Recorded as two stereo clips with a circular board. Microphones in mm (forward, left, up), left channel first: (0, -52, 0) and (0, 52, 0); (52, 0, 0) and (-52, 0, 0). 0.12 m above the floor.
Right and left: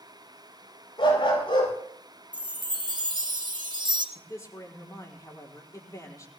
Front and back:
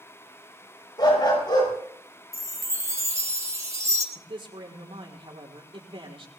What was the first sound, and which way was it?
A dog barking, 50° right.